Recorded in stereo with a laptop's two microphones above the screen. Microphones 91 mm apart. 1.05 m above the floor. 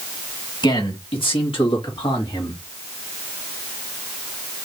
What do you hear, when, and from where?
0.6 s a man speaking: 60° left (ahead or behind), 1.9 m; by 2.6 s 55° left (ahead or behind), 2.5 m